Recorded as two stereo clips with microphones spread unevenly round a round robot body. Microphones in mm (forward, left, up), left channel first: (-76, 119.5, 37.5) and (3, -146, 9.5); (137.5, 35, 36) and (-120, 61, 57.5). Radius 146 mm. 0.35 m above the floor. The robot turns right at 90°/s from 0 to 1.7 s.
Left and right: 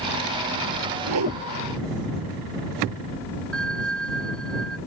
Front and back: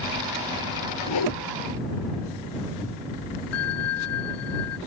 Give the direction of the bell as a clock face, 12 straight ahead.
11 o'clock.